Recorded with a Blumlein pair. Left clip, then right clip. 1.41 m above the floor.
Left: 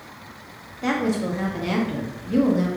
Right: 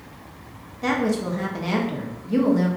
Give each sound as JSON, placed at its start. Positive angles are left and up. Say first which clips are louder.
{"t": 0.8, "sound": "a woman speaking", "louder": "right 1 dB", "azimuth_deg": -5, "distance_m": 0.7}